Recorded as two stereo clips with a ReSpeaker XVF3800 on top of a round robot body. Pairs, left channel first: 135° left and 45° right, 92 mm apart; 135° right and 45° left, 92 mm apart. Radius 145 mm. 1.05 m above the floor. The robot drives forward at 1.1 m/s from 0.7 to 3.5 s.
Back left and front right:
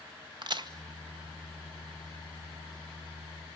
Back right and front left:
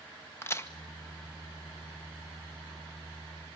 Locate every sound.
0.4 s a crack: 75° right, 1.5 m